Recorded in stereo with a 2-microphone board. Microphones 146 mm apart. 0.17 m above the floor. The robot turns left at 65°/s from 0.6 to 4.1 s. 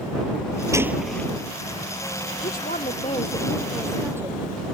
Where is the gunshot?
160° right; by 1.3 s 165° left.